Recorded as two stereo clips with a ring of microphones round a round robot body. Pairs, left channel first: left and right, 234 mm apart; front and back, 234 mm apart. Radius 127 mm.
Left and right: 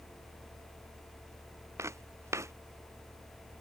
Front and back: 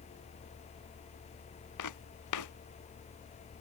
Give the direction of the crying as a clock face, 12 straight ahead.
No crying in this recording.